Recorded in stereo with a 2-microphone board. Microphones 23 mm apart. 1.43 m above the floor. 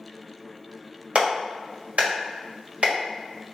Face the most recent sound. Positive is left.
turn(degrees=-75)  # may be behind; listen again after turning